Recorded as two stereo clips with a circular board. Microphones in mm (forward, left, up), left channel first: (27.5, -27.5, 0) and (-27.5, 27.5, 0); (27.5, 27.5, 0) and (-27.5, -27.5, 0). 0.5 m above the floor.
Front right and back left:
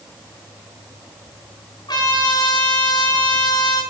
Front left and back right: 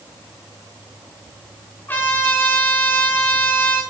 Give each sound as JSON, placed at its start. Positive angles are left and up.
{"t": 1.9, "sound": "a trumpet", "azimuth_deg": -20, "distance_m": 4.5}